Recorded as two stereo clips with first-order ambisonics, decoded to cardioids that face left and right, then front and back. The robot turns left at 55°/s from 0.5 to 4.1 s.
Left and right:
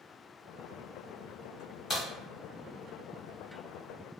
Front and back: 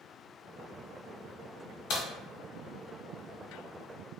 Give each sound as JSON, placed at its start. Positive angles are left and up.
{"t": 1.9, "sound": "a crack", "azimuth_deg": 20, "distance_m": 1.5}